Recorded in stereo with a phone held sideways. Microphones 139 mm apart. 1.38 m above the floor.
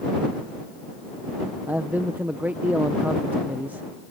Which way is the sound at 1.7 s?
10° right (ahead or behind).